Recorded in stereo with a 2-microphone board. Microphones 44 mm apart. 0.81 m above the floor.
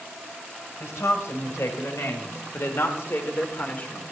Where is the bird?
I don't hear a bird.